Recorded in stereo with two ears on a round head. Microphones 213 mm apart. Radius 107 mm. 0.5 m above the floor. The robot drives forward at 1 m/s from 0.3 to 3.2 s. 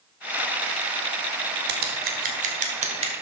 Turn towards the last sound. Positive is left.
turn(degrees=-25)  # may be behind; listen again after turning